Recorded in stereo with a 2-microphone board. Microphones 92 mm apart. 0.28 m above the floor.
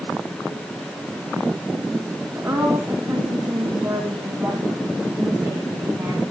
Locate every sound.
2.4 s a woman speaking: 20° right (ahead or behind), 2.0 m